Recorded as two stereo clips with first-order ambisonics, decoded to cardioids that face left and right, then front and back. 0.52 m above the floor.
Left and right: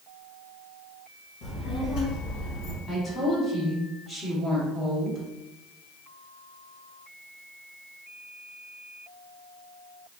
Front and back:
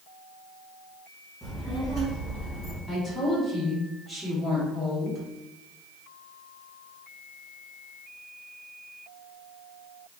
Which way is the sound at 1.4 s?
80° left.